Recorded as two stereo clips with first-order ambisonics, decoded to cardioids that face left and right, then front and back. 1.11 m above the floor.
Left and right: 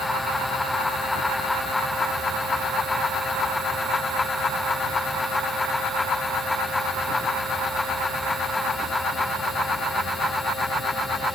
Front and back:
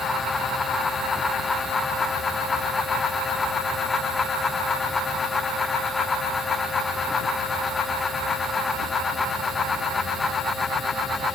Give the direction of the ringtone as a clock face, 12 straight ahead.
I don't hear a ringtone.